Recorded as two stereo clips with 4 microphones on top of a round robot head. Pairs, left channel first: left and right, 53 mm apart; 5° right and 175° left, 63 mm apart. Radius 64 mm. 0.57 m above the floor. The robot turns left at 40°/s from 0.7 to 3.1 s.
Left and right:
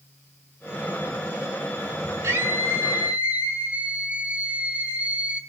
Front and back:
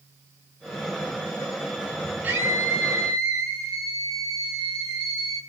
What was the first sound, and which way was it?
A scream, 120° right.